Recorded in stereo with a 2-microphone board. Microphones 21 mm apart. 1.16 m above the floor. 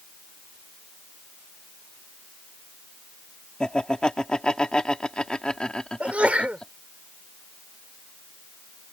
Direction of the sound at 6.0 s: 75° right (ahead or behind).